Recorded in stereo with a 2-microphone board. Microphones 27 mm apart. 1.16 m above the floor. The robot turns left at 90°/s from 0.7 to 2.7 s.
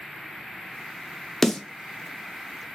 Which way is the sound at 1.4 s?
10° left (ahead or behind).